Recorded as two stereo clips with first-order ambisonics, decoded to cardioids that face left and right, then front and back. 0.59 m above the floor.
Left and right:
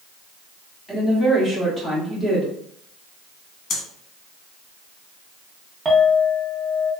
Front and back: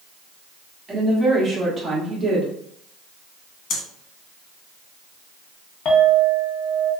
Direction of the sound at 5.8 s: 25° right.